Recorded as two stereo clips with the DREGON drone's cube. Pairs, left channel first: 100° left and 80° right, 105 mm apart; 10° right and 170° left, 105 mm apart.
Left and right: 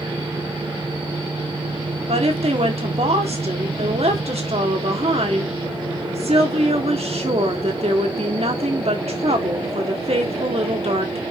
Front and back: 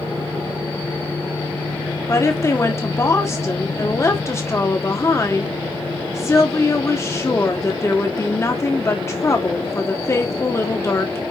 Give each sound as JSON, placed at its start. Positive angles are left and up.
{"t": 2.1, "sound": "a woman speaking", "azimuth_deg": -75, "distance_m": 1.8}